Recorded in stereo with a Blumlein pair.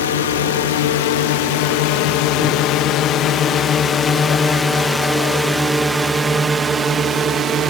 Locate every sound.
0.0 s a drone: 60° left; by 7.7 s 25° right